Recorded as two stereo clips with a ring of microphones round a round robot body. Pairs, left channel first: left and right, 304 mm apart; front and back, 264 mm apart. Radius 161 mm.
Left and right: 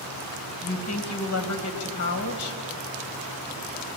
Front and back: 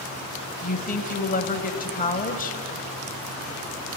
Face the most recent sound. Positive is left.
turn(degrees=55)